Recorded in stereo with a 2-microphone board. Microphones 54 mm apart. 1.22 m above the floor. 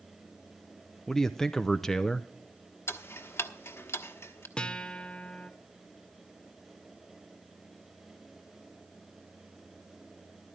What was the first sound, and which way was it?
A man speaking, 10° left (ahead or behind).